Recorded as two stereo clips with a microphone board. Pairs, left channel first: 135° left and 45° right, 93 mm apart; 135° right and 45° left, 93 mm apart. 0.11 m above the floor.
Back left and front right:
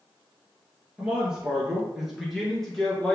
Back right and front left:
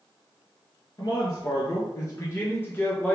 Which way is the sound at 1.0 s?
120° right.